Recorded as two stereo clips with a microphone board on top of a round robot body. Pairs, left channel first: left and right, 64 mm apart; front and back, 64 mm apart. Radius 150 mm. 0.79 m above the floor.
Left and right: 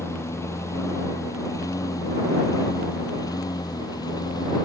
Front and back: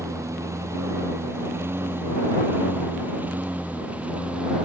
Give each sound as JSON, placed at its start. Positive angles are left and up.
{"t": 0.0, "sound": "a lawn mower", "azimuth_deg": 140}